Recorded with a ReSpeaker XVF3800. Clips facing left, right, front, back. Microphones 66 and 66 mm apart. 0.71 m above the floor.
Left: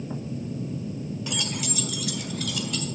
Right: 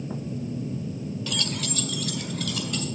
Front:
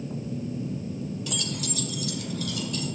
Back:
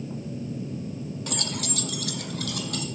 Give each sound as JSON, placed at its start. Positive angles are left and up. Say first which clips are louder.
{"t": 1.3, "sound": "keys jangling", "louder": "even, back 1 dB", "azimuth_deg": 155, "distance_m": 0.5}